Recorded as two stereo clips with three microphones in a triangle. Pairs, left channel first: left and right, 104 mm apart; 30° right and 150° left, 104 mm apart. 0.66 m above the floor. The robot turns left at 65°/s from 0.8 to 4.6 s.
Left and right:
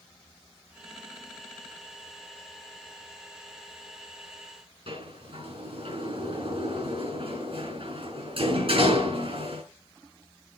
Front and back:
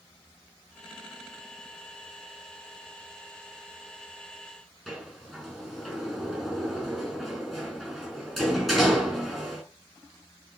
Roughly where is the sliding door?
Behind right.